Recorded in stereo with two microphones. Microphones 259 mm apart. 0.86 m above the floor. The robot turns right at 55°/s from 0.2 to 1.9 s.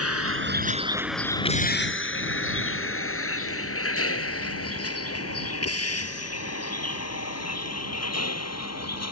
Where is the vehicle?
60° right (ahead or behind); by 9.1 s 65° left (ahead or behind).